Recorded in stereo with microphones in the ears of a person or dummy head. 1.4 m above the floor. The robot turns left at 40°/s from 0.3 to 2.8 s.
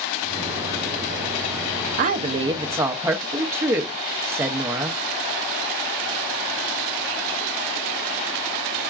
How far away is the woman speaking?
About 0.6 m.